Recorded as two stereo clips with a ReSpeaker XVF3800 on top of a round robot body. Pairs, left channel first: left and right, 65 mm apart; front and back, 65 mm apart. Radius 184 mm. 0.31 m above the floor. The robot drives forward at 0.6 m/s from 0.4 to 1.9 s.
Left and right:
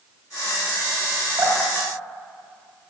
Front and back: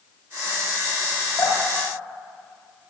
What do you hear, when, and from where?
1.4 s dripping: 40° right, 3.5 m